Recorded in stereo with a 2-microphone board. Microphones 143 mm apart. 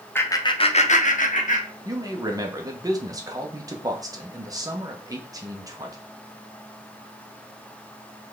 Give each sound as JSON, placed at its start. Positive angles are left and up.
{"t": 0.1, "sound": "laughter", "side_deg": 15, "distance_m": 0.9}
{"t": 1.9, "sound": "a man speaking", "side_deg": -25, "distance_m": 1.0}